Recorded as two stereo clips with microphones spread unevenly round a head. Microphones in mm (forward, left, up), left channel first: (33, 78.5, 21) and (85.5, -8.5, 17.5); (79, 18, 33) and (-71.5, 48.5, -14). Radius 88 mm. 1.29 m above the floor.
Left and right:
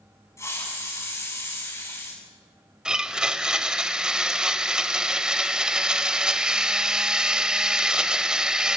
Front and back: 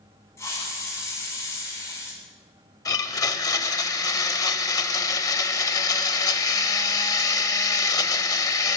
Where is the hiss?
60° left, 8.5 m.